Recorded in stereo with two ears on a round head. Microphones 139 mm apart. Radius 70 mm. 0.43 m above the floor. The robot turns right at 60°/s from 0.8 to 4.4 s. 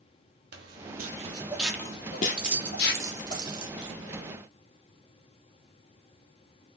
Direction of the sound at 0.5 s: 70° right (ahead or behind).